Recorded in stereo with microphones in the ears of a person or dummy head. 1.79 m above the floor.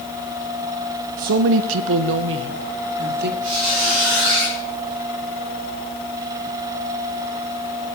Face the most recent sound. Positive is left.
turn(degrees=-55)  # may be behind; listen again after turning